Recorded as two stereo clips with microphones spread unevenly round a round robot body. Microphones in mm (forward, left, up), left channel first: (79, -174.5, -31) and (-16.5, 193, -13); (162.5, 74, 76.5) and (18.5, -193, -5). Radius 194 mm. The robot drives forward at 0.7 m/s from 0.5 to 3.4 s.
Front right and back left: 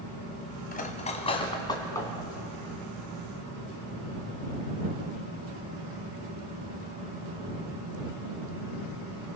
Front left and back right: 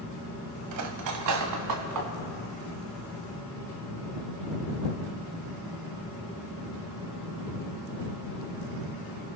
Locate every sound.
0.7 s cutlery clinking: 145° right, 1.4 m; by 2.1 s 160° right, 2.5 m